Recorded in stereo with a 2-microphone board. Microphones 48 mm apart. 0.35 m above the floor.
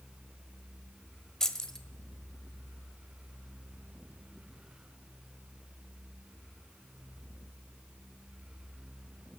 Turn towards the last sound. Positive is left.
turn(degrees=10)  # may be behind; listen again after turning